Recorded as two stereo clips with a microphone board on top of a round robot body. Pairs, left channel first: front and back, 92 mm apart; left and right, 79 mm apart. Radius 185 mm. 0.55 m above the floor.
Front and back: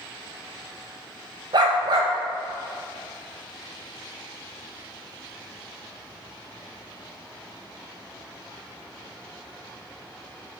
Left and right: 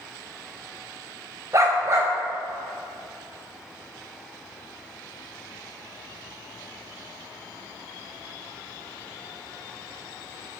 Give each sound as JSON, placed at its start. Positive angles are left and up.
{"t": 1.5, "sound": "a dog barking", "azimuth_deg": -140, "distance_m": 0.6}